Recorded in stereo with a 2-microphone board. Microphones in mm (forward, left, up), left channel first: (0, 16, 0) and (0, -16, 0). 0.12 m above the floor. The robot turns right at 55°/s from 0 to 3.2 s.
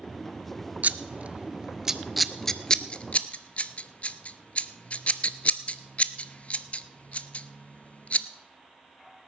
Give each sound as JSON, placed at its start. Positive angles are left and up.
{"t": 0.8, "sound": "scissors", "side_deg": -55, "distance_m": 0.5}